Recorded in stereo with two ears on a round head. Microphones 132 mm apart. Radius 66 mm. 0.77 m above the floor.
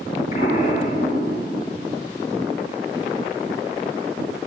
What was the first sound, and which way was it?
An explosion, 50° left (ahead or behind).